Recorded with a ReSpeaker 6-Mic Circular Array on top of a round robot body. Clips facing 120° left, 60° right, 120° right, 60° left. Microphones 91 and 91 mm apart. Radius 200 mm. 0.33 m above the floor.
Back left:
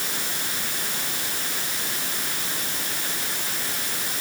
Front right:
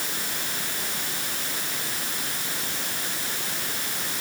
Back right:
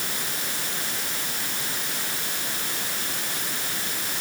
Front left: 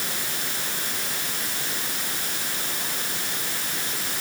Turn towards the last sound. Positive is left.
No sound to turn to.